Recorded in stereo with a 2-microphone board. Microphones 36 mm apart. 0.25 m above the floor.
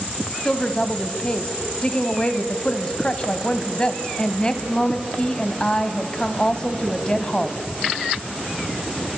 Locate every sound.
0.5 s a woman speaking: 25° left (ahead or behind), 1.5 m